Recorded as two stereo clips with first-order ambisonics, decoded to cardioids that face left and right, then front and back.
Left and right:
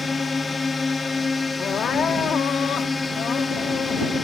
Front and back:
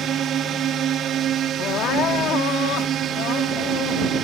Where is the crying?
35° left.